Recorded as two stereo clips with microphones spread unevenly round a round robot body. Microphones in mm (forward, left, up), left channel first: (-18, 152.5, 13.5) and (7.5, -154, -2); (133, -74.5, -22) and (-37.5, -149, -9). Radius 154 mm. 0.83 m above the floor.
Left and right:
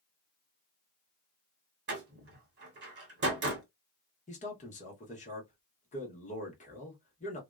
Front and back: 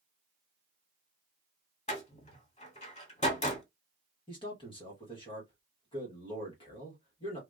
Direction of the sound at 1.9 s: 30° right.